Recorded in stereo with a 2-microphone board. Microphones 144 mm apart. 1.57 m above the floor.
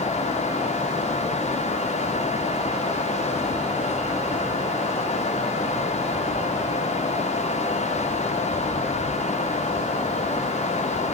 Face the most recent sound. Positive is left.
No sound to turn to.